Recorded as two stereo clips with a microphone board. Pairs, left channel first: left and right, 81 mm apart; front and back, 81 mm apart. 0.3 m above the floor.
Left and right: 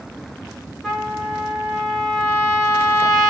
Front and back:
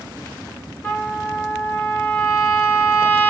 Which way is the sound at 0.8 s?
15° left.